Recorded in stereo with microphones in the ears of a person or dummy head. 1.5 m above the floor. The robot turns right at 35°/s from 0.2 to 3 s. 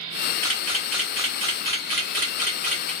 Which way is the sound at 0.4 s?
5° left (ahead or behind).